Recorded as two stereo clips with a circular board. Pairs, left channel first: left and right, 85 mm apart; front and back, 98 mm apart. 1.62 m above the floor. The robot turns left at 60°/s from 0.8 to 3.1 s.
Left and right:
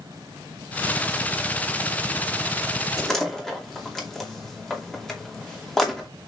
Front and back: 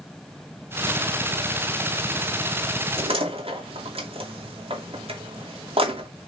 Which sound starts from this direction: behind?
A door slam, at 3.0 s.